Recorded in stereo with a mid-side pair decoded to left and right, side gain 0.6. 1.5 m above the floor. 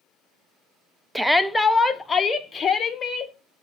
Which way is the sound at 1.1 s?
10° right.